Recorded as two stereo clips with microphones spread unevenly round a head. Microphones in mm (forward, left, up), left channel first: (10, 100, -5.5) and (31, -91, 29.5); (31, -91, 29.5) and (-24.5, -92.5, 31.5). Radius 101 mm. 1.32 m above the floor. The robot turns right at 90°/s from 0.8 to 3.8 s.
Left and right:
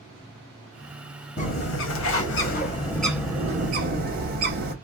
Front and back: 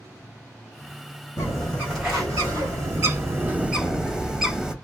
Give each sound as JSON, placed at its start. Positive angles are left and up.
{"t": 1.4, "sound": "a bird", "azimuth_deg": 40, "distance_m": 1.0}